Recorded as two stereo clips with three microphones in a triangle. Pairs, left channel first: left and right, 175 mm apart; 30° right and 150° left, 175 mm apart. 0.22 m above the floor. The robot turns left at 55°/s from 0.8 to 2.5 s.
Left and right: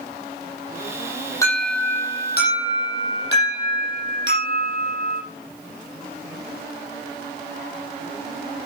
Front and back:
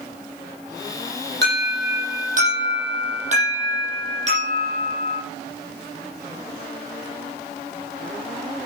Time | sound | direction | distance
1.4 | an alarm | 160° left | 8.5 m